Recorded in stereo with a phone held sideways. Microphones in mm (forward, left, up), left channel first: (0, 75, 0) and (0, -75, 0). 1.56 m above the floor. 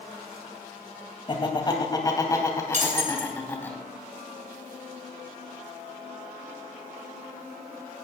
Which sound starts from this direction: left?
Laughter, at 1.3 s.